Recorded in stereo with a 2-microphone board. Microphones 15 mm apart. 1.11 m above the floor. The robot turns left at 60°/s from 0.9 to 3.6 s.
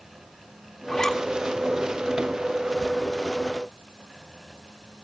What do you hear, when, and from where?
0.9 s a zipper: 30° left (ahead or behind), 3 m; by 1.2 s 50° left (ahead or behind), 3 m